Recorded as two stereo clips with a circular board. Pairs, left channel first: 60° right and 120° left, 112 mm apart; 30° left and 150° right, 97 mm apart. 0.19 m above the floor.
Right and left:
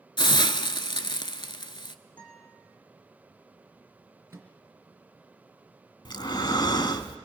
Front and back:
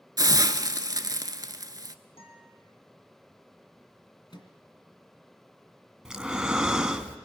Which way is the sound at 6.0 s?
70° right.